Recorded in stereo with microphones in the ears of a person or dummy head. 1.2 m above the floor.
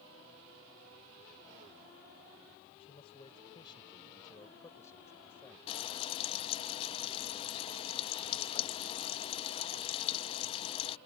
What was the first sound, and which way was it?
A man speaking, 35° left (ahead or behind).